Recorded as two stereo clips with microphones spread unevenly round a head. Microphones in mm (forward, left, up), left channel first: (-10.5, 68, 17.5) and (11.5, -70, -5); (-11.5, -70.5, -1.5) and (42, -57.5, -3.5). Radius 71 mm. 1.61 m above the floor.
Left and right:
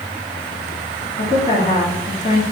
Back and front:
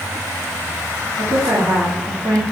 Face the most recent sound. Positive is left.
turn(degrees=45)